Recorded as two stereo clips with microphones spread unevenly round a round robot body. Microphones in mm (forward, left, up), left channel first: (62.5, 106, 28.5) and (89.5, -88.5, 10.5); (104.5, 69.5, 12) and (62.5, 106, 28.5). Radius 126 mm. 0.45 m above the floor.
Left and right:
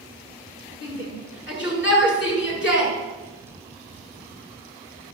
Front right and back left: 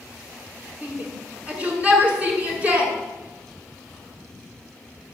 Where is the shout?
70° left, 6.5 m.